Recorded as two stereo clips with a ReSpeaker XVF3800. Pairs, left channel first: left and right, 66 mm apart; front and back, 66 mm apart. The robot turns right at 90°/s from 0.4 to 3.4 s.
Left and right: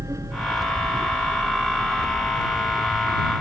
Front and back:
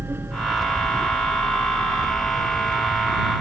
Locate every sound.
0.0 s a vehicle: 125° right; by 3.4 s 145° left